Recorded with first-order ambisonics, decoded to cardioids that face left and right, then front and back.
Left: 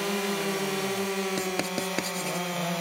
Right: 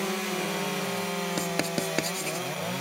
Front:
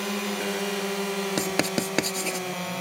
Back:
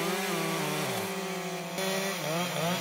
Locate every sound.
1.4 s writing: 5° right